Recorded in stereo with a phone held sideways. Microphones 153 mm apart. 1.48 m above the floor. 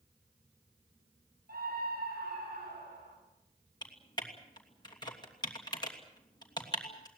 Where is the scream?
75° right (ahead or behind), 9 m; by 3.2 s 85° right, 9.5 m.